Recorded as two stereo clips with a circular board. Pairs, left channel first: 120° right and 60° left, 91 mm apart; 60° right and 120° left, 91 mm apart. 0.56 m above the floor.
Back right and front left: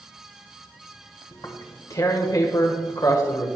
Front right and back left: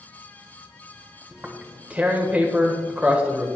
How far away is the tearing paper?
About 1.5 m.